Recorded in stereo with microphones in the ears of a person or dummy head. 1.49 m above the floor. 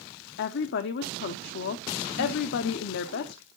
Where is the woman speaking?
65° left (ahead or behind), 0.6 m.